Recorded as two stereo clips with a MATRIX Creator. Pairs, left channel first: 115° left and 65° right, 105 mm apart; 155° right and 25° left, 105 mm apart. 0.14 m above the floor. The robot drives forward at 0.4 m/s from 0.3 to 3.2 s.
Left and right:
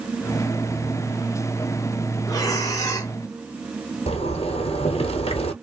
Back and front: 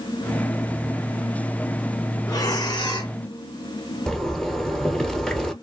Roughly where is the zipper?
Behind left.